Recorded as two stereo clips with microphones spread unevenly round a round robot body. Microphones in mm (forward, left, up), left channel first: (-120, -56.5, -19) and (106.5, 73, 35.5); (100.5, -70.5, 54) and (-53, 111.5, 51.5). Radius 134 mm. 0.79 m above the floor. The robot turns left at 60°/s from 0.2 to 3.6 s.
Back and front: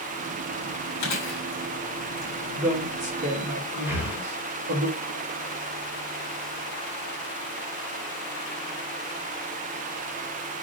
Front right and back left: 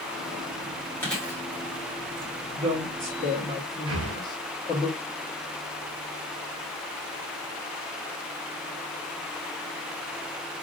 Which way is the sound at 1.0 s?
130° right.